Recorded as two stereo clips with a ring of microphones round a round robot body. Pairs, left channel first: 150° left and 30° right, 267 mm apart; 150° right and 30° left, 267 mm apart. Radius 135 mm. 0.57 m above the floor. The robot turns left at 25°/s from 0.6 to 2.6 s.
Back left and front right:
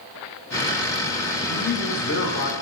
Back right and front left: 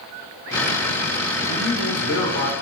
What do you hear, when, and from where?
1.5 s a man speaking: 160° right, 3 m; by 2.5 s 175° left, 3 m